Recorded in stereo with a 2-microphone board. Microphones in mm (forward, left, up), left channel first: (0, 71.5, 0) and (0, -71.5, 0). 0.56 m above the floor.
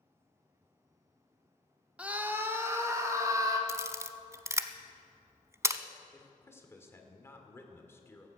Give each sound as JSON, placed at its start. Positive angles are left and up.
{"t": 2.0, "sound": "a scream", "side_deg": -10, "distance_m": 1.1}
{"t": 3.7, "sound": "a camera shutter", "side_deg": -20, "distance_m": 0.6}
{"t": 6.1, "sound": "a man speaking", "side_deg": 20, "distance_m": 1.6}